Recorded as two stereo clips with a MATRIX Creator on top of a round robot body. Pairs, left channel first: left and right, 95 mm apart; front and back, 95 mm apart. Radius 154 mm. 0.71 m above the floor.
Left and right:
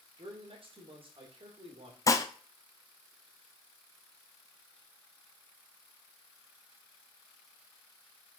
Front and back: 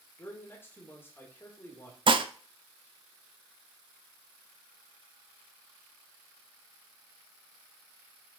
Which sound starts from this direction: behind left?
Dishes clattering, at 2.1 s.